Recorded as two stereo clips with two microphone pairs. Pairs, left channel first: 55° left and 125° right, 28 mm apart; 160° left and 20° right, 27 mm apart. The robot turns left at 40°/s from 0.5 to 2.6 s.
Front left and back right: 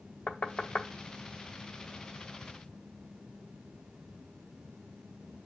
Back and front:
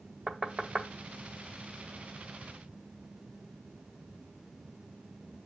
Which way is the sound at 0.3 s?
40° left.